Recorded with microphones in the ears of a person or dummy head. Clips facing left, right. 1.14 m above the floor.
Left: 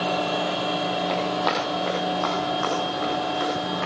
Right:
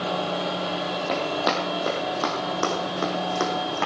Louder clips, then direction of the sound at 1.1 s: Left 1 dB; 20° right (ahead or behind).